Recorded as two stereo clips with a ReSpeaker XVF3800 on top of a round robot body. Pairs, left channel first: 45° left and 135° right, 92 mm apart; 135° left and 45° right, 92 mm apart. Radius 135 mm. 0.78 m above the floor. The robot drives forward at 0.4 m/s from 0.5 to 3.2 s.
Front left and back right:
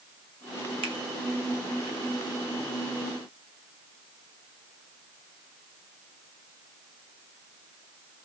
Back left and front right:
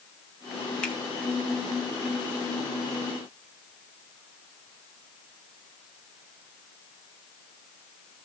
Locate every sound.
0.8 s a finger snap: 145° right, 1.8 m